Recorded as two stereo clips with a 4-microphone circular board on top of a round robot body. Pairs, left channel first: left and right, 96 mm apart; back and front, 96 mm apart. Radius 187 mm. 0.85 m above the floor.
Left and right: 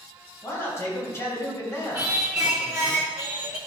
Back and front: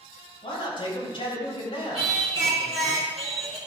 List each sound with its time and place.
0.4 s a man speaking: 150° left, 3.5 m
1.9 s singing: 25° right, 0.6 m